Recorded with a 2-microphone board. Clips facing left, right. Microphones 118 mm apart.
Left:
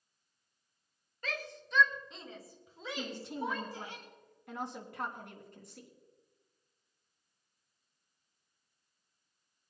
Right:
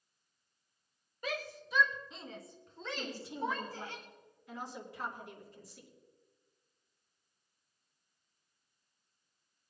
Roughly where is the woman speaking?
Left.